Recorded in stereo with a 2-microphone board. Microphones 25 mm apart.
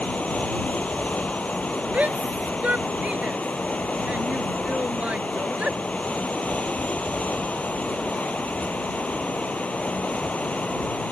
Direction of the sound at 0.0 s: 65° left (ahead or behind).